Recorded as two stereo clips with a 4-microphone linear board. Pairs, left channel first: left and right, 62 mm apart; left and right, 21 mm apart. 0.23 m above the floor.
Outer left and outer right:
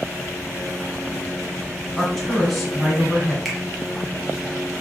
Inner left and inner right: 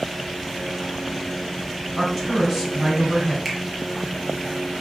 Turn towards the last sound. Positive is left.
turn(degrees=0)  # may be behind; listen again after turning